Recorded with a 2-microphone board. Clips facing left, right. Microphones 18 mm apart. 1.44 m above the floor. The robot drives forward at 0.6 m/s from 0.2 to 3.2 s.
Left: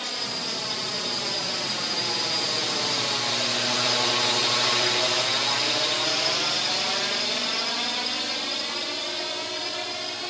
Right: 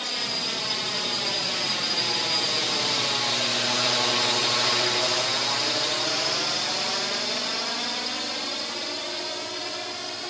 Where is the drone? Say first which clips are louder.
Right 2 dB; 10° right (ahead or behind); by 10.3 s 10° left (ahead or behind).